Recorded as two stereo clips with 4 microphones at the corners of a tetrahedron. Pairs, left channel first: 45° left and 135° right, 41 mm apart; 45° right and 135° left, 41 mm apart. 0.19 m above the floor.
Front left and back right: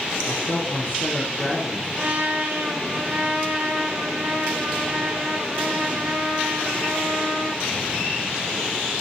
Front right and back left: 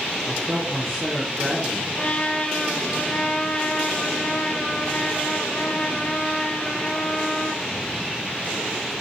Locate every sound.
0.3 s a man speaking: 50° left, 3.5 m
2.0 s a trumpet: 95° right, 4.5 m